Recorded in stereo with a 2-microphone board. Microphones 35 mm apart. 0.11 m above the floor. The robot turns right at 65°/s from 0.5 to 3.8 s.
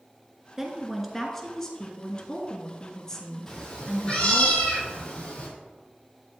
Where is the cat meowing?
15° left (ahead or behind), 2 m; by 5.5 s 35° left (ahead or behind), 2 m.